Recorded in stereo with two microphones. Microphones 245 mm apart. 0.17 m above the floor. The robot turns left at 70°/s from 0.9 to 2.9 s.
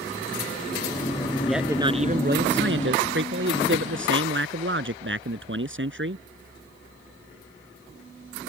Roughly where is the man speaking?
Ahead.